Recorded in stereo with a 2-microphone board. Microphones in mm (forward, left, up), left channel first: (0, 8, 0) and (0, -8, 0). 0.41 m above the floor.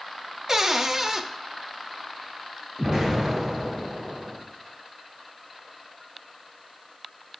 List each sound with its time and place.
0.5 s a cupboard door: 25° right (ahead or behind), 0.6 m
2.8 s an explosion: 25° right (ahead or behind), 3 m